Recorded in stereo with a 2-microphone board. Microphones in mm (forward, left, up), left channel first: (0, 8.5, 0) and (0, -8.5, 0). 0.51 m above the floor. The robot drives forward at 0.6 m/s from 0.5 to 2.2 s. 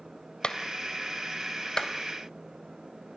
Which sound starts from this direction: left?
A clap, at 0.4 s.